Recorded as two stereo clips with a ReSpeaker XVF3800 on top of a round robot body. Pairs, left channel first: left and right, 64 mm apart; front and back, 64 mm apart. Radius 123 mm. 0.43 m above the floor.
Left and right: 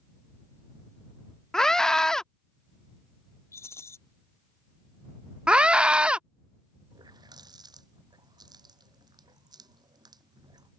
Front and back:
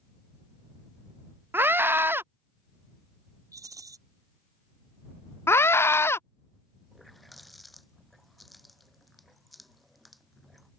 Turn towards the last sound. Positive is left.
turn(degrees=-90)